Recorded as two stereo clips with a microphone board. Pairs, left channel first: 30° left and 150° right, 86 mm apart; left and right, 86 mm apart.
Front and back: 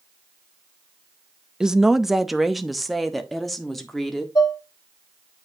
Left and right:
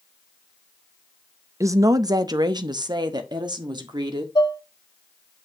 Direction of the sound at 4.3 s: 60° left.